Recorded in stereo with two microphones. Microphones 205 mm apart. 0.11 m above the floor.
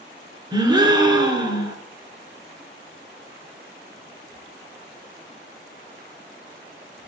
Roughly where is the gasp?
Right.